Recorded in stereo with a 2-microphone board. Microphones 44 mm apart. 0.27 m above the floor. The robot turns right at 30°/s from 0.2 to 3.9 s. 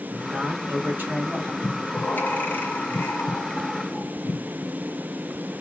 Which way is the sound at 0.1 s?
95° right.